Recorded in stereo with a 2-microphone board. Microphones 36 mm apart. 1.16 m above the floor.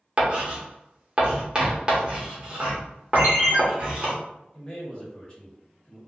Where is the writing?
25° right (ahead or behind), 0.9 m.